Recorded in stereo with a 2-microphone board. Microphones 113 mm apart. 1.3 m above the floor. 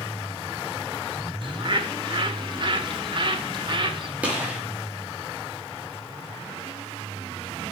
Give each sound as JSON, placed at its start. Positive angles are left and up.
{"t": 1.4, "sound": "a bird", "side_deg": -45, "distance_m": 1.4}
{"t": 4.2, "sound": "a gunshot", "side_deg": -10, "distance_m": 3.5}